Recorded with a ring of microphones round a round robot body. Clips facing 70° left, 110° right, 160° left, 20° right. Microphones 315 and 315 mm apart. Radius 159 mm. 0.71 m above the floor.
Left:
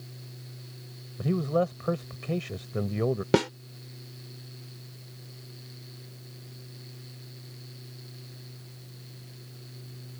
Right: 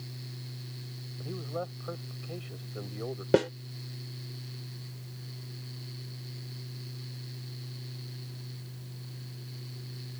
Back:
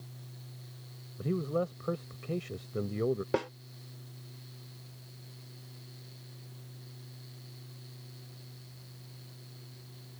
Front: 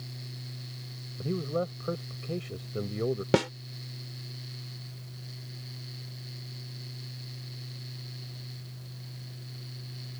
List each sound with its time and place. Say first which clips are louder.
1.2 s a man speaking: left 11 dB, front 1 dB; 70° left
3.3 s a snare drum: even, front 6 dB; 5° left